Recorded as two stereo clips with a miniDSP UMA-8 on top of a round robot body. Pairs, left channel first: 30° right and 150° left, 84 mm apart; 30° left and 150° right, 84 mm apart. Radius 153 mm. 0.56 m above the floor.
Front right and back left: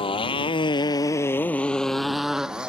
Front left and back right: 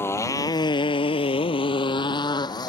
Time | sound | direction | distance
0.0 | a motorcycle | 35° right | ?